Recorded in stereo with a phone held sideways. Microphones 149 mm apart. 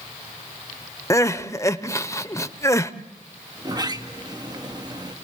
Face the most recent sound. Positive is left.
turn(degrees=-30)  # may be behind; listen again after turning